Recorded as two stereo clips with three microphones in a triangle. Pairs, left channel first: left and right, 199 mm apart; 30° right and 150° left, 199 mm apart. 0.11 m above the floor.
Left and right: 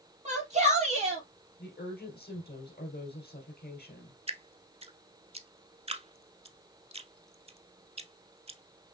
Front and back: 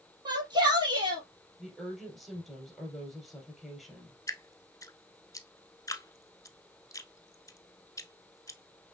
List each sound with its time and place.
0.2 s a shout: 140° right, 3 m
1.6 s a woman speaking: 60° left, 2.5 m
4.3 s dripping: 90° right, 0.5 m